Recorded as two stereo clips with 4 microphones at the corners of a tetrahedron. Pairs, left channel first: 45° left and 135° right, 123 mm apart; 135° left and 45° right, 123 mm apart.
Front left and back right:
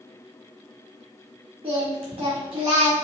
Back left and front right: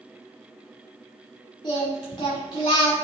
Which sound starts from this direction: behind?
Singing, at 1.6 s.